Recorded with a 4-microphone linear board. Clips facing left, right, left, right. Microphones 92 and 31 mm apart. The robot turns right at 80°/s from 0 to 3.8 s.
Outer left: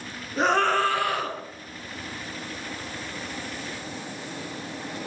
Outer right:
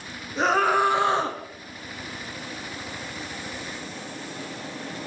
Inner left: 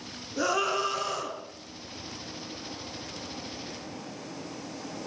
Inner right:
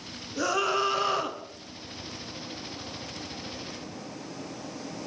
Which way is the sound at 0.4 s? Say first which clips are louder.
Outer right 1 dB, inner right 1 dB; 175° left.